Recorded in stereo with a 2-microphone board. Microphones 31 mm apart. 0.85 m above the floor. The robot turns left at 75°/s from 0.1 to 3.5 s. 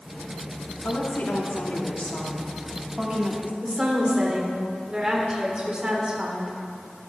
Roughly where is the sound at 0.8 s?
Behind left.